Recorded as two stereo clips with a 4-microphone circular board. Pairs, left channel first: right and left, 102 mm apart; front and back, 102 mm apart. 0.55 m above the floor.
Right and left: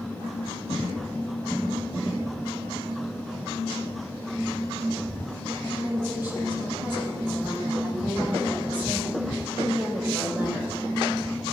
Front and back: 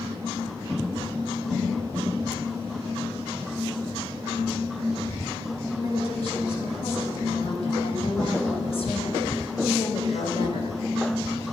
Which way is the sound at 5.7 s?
20° left.